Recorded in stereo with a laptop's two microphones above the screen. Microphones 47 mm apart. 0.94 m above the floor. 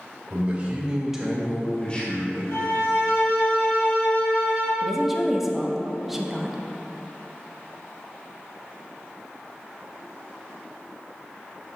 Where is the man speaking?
30° right (ahead or behind), 1.8 m; by 2.4 s 40° left (ahead or behind), 1.4 m.